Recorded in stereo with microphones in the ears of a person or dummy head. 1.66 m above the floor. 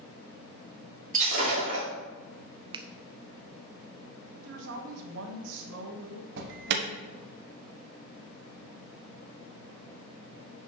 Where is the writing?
I don't hear writing.